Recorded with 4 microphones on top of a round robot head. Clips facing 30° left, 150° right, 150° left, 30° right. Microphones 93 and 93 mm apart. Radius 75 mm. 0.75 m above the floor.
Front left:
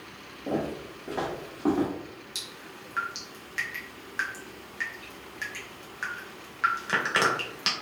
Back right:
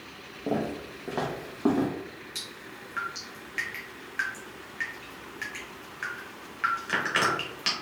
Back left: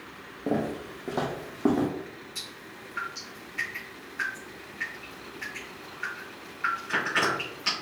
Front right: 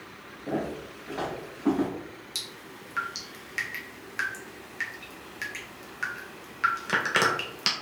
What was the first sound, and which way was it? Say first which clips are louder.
Footsteps: back right 1 dB, back left 3 dB; 150° left.